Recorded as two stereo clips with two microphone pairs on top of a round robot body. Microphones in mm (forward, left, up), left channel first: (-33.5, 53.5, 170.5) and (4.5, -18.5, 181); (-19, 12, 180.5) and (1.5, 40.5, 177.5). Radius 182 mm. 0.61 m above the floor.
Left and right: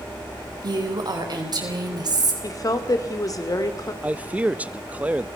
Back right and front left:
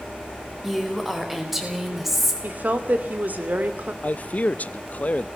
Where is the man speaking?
135° right, 0.9 m.